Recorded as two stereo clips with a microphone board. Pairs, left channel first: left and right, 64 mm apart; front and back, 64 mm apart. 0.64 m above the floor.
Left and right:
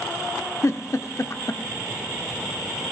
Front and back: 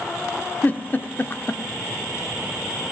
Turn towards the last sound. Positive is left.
turn(degrees=55)